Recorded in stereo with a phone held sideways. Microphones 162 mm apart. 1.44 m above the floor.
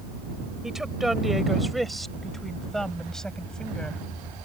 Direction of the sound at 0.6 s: 5° right (ahead or behind).